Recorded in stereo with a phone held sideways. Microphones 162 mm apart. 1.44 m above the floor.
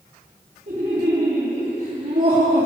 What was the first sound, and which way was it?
Laughter, 55° right (ahead or behind).